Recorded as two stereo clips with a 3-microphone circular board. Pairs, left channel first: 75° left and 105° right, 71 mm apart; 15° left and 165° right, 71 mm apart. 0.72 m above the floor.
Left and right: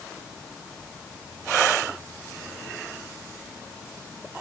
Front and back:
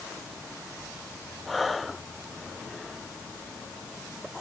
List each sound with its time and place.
Only background noise.